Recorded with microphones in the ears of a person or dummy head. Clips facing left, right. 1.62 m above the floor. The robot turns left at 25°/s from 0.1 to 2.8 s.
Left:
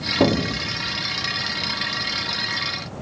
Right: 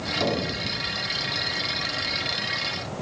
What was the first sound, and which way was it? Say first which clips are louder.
An explosion: left 8 dB; 85° left.